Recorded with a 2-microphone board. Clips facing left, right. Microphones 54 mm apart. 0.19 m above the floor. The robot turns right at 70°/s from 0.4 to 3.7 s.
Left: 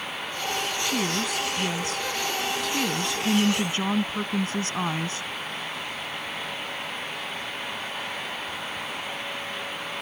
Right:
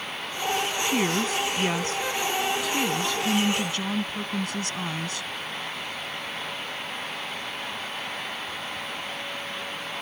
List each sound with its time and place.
0.8 s a woman speaking: 130° right; by 5.3 s 65° left